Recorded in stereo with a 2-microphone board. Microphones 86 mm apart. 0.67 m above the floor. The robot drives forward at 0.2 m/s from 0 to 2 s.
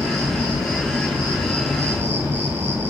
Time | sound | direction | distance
0.0 | an insect | 35° right (ahead or behind) | 1.4 m